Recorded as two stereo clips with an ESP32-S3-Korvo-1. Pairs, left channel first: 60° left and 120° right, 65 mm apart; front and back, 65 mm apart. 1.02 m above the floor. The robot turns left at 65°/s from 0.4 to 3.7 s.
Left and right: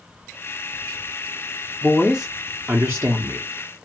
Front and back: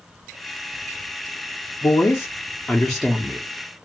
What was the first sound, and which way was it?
A woman speaking, 15° right.